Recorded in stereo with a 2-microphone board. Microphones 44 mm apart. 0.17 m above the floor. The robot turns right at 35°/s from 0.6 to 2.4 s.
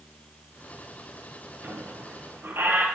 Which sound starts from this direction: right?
A squeak, at 1.6 s.